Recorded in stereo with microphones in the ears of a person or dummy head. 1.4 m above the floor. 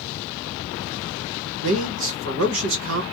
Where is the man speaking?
75° right (ahead or behind), 1.3 m.